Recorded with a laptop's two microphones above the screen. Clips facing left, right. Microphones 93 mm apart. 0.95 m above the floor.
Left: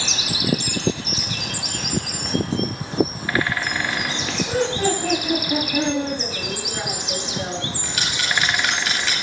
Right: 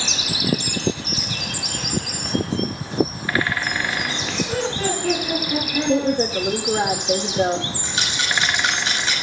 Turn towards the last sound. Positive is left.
turn(degrees=-25)  # may be behind; listen again after turning